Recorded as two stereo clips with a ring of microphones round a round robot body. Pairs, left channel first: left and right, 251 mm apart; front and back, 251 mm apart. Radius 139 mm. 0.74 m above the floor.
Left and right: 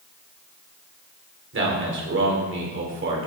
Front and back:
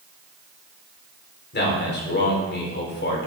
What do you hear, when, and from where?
1.5 s a man speaking: 50° right, 1.9 m